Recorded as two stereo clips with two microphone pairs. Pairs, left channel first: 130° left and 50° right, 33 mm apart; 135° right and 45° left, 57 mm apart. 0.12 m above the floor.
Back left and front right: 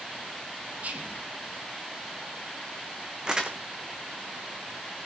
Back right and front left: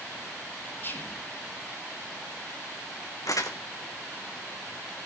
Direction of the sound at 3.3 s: 115° right.